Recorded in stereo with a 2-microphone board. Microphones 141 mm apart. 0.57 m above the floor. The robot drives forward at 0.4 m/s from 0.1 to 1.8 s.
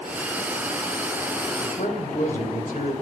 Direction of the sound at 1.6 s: 65° left (ahead or behind).